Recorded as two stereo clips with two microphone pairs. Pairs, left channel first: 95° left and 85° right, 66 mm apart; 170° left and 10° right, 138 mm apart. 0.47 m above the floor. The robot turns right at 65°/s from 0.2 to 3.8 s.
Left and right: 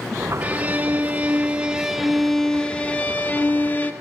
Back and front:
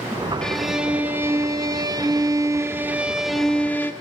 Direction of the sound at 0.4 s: 115° right.